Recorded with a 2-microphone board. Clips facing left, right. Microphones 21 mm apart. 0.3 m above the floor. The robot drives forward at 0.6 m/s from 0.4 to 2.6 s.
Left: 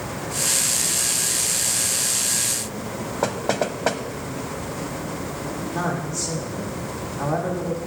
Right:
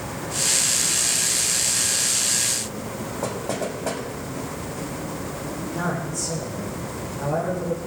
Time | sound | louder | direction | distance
3.2 | knocking | left 5 dB | 40° left (ahead or behind) | 1.3 m
5.8 | a man speaking | left 1 dB | 50° left (ahead or behind) | 8 m